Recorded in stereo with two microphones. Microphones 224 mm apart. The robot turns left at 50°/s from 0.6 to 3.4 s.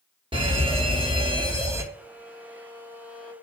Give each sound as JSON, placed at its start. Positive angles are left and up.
{"t": 0.3, "sound": "a fire alarm", "side_deg": -25, "distance_m": 1.6}
{"t": 1.9, "sound": "a violin", "azimuth_deg": -120, "distance_m": 3.5}